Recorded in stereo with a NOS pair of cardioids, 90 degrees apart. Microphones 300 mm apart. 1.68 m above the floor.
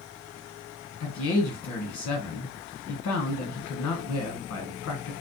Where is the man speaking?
65° left, 1.2 m.